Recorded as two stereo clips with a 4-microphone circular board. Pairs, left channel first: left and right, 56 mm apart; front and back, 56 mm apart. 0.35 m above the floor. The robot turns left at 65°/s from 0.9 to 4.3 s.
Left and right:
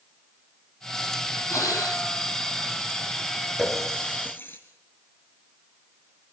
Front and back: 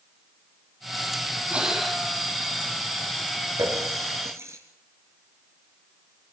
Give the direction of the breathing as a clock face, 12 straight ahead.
8 o'clock.